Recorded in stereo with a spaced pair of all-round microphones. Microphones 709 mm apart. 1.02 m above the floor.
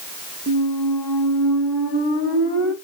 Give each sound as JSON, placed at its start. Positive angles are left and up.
{"t": 0.5, "sound": "a squeak", "side_deg": -20, "distance_m": 0.8}